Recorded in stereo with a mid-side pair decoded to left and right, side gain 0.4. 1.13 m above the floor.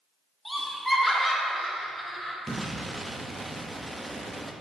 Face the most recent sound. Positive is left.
turn(degrees=-10)